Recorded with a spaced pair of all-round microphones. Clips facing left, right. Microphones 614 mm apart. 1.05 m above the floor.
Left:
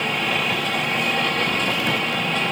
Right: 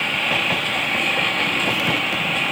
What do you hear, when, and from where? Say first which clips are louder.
0.0 s a lawn mower: left 2 dB; 65° left (ahead or behind); by 2.5 s 60° left (ahead or behind)